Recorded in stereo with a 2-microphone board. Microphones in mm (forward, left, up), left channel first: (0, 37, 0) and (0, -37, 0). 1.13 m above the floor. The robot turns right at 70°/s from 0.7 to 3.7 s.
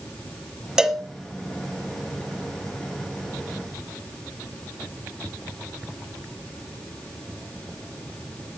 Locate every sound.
0.8 s a cowbell: 10° right (ahead or behind), 1.5 m; by 1.0 s 10° left (ahead or behind), 1.5 m